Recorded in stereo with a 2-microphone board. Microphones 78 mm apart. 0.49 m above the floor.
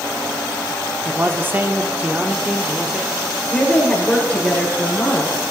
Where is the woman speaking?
15° left (ahead or behind), 7 m.